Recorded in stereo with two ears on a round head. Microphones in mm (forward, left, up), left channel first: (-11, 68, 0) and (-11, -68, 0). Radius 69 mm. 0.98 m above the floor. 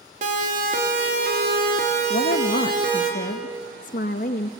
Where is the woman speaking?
50° left (ahead or behind), 0.8 m.